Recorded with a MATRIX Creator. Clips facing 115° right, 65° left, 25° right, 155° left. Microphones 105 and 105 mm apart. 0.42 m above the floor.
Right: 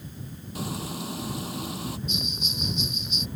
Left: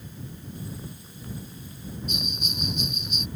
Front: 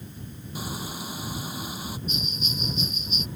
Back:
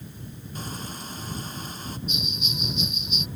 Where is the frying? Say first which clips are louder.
Right 10 dB, front 2 dB; 105° right.